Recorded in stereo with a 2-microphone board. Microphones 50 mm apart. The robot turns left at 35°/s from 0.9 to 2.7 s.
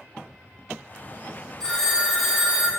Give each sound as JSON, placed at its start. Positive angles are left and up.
{"t": 1.6, "sound": "a phone ringing", "azimuth_deg": 25, "distance_m": 0.9}